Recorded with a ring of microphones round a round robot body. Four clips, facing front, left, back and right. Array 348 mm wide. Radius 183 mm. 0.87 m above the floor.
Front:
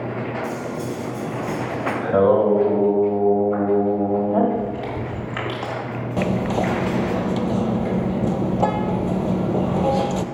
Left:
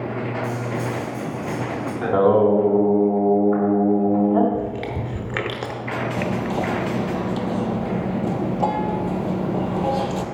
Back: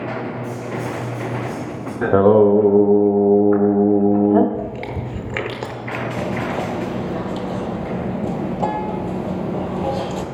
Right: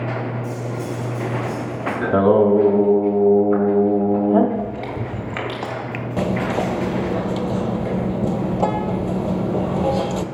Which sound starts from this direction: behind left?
Chewing, at 4.5 s.